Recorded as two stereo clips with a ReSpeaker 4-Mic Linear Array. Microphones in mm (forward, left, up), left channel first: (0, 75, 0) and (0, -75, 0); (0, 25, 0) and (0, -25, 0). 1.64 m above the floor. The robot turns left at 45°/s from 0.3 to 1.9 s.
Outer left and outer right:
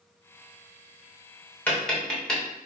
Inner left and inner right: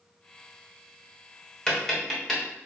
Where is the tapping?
10° left (ahead or behind), 1.1 m; by 2.4 s 5° left (ahead or behind), 1.1 m.